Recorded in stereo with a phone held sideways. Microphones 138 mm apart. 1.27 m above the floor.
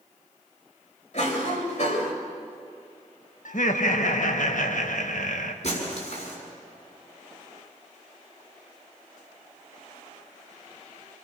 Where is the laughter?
65° left (ahead or behind), 1.7 m.